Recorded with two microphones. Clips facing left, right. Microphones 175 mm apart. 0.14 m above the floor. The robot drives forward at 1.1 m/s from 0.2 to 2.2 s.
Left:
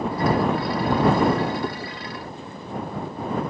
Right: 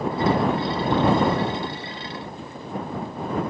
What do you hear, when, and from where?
1.6 s chewing: 25° left (ahead or behind); by 1.9 s 30° left (ahead or behind)